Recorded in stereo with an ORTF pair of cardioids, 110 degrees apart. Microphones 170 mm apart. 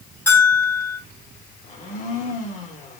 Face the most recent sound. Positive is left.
turn(degrees=50)